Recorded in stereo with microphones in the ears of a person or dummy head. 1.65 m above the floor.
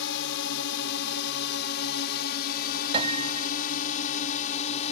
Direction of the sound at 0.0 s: 70° left (ahead or behind).